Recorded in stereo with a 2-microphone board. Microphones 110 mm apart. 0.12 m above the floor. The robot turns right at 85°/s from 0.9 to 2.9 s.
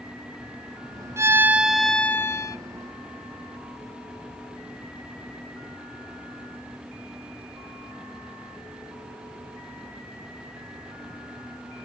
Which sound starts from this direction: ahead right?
A violin, at 1.2 s.